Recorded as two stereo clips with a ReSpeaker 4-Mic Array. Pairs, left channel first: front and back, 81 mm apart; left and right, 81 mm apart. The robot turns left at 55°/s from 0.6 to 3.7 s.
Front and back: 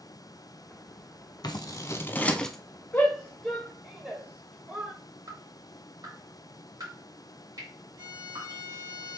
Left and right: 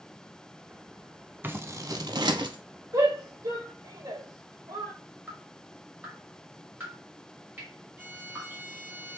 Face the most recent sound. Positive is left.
turn(degrees=-155)